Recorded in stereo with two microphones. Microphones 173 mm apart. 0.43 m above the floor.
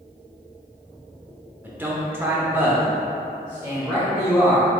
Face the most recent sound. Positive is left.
turn(degrees=-5)  # may be behind; listen again after turning